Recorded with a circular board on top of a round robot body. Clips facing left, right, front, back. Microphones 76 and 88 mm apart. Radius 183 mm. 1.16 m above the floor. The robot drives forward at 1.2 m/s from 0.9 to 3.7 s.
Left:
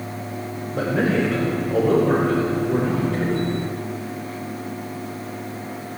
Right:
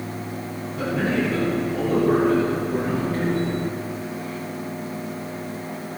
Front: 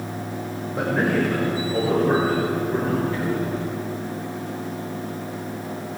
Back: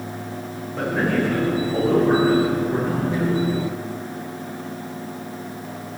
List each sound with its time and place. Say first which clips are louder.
0.7 s a man speaking: left 3 dB, even; 70° left, 5.5 m; by 3.5 s 105° left, 5 m